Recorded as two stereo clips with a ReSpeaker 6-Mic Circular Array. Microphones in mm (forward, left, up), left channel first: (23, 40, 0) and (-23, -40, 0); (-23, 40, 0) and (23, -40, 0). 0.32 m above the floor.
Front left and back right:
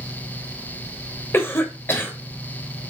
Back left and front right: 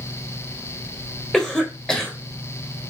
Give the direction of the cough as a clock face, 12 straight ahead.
11 o'clock.